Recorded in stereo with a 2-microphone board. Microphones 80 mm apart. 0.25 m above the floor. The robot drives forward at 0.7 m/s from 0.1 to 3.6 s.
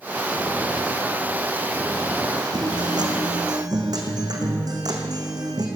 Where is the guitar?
70° right (ahead or behind), 3 m; by 5.7 s 55° right (ahead or behind), 3 m.